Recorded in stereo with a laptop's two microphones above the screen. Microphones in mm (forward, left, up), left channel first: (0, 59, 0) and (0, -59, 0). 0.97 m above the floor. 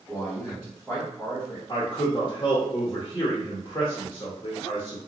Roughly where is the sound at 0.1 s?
Centre.